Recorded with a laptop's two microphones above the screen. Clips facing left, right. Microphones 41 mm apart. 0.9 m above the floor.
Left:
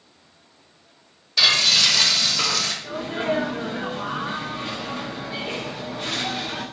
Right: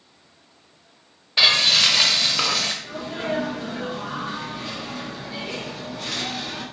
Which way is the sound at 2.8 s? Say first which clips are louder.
Left 3 dB; 15° left (ahead or behind).